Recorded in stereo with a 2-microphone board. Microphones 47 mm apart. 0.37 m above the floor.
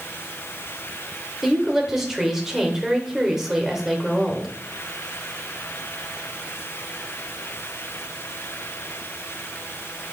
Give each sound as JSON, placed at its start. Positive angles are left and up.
{"t": 1.4, "sound": "a woman speaking", "side_deg": -10, "distance_m": 0.9}